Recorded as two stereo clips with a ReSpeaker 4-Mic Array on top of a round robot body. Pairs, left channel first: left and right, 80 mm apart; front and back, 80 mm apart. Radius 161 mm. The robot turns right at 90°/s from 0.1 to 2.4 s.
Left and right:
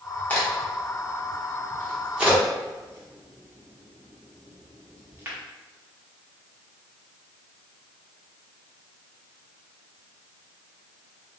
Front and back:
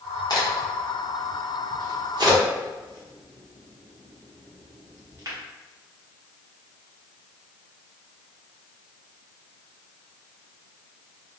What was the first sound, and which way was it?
A crack, 25° left.